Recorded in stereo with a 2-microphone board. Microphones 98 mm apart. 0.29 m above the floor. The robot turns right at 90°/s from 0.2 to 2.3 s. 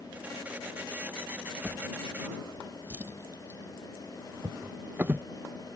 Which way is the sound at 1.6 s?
5° right (ahead or behind).